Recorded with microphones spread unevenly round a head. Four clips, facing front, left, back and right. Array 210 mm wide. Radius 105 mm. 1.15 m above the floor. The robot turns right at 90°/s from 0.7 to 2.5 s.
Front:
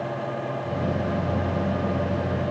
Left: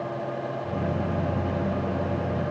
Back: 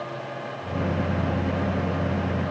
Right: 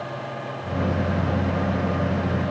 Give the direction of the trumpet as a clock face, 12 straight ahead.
I don't hear a trumpet.